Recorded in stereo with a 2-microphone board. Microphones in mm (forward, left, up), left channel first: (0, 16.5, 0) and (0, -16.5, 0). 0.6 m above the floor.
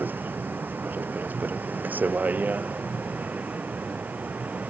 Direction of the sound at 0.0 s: 65° right (ahead or behind).